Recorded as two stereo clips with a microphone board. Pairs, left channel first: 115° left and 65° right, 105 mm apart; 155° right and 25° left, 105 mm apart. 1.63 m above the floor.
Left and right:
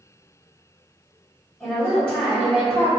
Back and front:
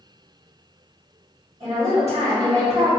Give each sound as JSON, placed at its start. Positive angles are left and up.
{"t": 1.6, "sound": "a woman speaking", "azimuth_deg": 35, "distance_m": 1.6}